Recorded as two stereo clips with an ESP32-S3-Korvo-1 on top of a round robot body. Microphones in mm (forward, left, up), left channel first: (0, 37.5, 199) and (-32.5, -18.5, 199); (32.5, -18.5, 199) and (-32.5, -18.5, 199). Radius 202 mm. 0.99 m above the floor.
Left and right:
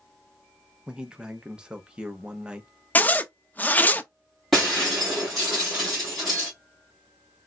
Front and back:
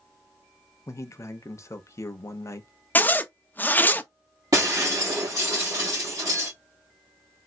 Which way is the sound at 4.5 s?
150° left.